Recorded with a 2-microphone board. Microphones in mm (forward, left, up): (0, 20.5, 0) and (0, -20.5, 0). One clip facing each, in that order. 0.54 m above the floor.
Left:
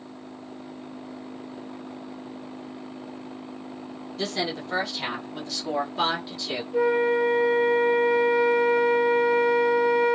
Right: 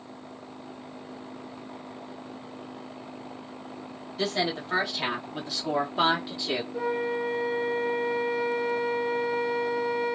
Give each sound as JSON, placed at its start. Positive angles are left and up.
{"t": 4.2, "sound": "a woman speaking", "side_deg": -10, "distance_m": 1.3}
{"t": 6.7, "sound": "a flute", "side_deg": 70, "distance_m": 1.2}